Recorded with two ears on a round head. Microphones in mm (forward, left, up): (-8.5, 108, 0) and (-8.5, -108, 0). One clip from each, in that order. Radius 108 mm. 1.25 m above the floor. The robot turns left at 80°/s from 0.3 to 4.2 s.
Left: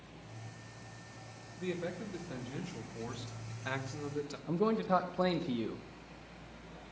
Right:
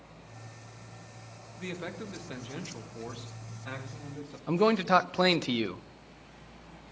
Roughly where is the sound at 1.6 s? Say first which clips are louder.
Even; ahead right.